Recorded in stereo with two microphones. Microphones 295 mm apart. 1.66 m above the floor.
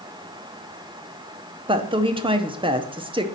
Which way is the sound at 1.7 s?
15° right (ahead or behind).